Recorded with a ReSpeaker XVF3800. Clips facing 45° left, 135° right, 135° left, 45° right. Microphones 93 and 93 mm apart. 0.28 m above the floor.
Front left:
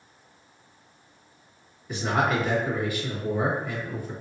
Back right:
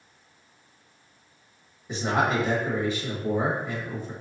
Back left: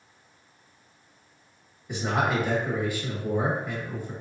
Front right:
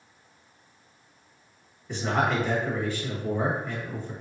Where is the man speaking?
160° right, 1.0 m.